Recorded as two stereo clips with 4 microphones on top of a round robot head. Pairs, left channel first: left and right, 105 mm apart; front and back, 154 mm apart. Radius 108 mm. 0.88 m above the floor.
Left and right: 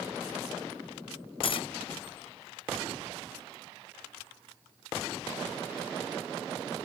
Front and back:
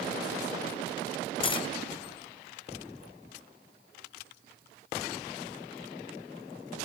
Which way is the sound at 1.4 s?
60° left.